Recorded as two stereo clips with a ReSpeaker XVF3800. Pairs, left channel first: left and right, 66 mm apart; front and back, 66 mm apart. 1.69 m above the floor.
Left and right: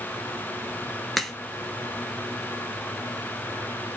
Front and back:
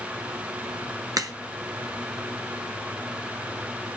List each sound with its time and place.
1.2 s a crack: straight behind, 1.2 m